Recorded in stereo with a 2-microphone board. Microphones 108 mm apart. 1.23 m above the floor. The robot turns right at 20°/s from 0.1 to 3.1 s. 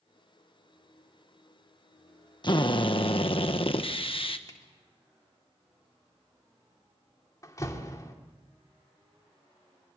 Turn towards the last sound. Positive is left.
turn(degrees=30)  # may be behind; listen again after turning